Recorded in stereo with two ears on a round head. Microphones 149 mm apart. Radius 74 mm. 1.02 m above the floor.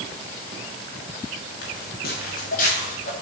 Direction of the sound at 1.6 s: 60° left (ahead or behind).